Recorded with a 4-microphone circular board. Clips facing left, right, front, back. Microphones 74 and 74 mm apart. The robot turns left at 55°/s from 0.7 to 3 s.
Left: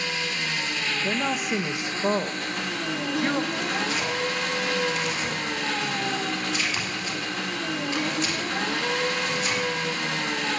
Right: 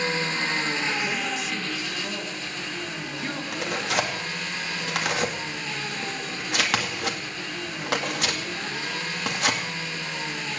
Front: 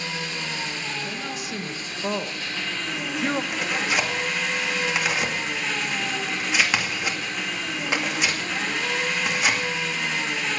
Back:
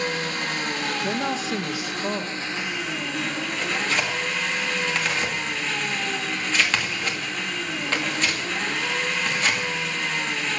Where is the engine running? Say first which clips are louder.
Right 3 dB, back 4 dB; 145° right, 2 m; by 10.6 s 85° left, 2 m.